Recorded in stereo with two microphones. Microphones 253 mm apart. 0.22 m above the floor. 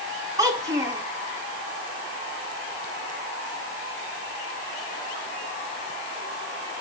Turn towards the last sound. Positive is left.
turn(degrees=-15)  # may be behind; listen again after turning